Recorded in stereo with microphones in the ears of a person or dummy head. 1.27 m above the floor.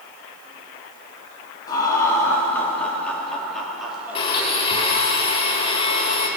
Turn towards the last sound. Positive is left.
turn(degrees=25)  # may be behind; listen again after turning